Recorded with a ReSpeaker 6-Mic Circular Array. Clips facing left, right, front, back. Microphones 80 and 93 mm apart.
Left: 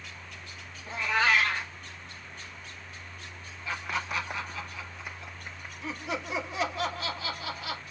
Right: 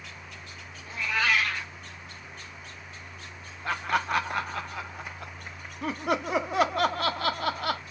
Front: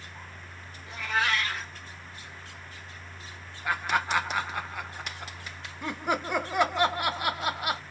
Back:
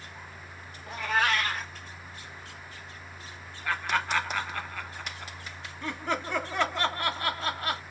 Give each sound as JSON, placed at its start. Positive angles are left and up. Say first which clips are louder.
{"t": 0.9, "sound": "a cat meowing", "louder": "left 1 dB, back 2 dB", "azimuth_deg": 145, "distance_m": 1.2}
{"t": 3.6, "sound": "laughter", "louder": "right 6 dB, front 1 dB", "azimuth_deg": -75, "distance_m": 0.6}